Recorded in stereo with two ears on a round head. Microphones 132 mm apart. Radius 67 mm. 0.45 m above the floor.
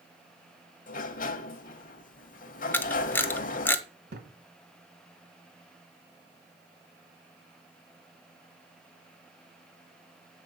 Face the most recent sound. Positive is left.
turn(degrees=-80)